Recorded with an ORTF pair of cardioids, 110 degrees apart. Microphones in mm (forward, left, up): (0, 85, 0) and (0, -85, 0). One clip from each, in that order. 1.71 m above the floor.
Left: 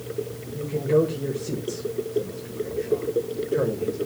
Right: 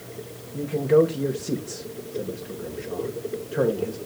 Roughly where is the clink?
I don't hear a clink.